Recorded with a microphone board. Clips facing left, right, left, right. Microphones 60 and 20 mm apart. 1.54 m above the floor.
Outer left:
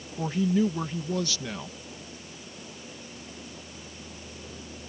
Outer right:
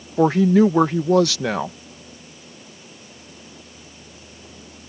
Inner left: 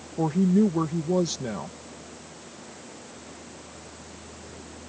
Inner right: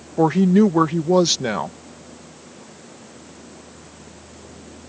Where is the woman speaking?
80° right.